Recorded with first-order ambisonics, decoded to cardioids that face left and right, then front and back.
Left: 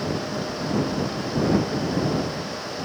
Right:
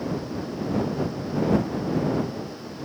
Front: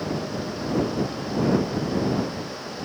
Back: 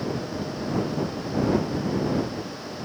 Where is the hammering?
I don't hear hammering.